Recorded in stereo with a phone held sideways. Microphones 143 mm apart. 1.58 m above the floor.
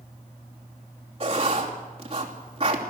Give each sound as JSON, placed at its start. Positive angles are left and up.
{"t": 1.2, "sound": "writing", "side_deg": -40, "distance_m": 3.0}